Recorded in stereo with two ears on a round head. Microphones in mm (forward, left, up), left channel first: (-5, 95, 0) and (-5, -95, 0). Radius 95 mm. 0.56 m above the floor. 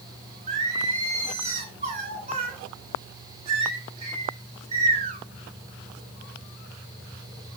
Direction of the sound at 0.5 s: 30° right (ahead or behind).